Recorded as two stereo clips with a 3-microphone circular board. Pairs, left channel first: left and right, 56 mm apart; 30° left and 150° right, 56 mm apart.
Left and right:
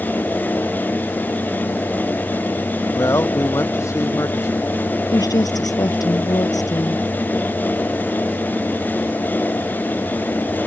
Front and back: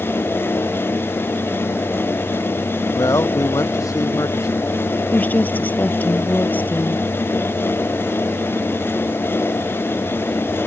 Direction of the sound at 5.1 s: 95° left.